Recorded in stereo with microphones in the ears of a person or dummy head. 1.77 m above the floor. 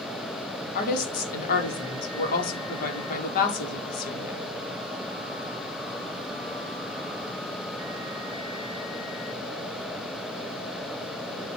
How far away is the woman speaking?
About 1.5 m.